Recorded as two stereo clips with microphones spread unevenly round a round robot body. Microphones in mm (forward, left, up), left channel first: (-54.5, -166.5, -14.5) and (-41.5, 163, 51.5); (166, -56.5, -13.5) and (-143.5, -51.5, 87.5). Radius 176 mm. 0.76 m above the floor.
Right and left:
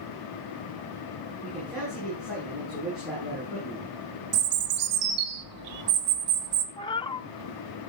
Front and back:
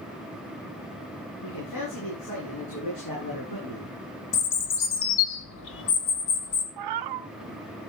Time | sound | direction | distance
1.4 | a man speaking | straight ahead | 9 m
4.3 | a bird | 50° left | 1.8 m
6.8 | a cat meowing | 170° right | 0.8 m